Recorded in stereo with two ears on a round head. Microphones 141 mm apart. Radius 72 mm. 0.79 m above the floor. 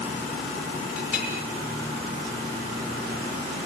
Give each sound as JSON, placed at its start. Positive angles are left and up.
{"t": 1.0, "sound": "a clink", "side_deg": -10, "distance_m": 6.0}